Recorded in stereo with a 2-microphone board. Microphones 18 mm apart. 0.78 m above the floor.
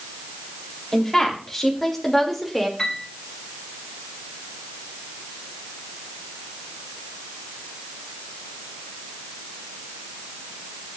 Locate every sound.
0.9 s a woman speaking: 15° left (ahead or behind), 4 m; by 2.7 s 5° right (ahead or behind), 3 m
2.8 s a piano: 20° left (ahead or behind), 4 m